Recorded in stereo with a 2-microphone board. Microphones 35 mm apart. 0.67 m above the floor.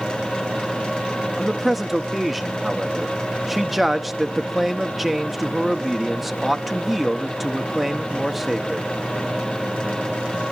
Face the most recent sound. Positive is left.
turn(degrees=-5)  # may be behind; listen again after turning